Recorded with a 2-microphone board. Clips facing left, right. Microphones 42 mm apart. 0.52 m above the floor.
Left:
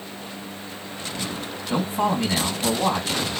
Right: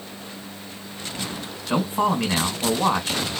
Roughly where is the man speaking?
Right.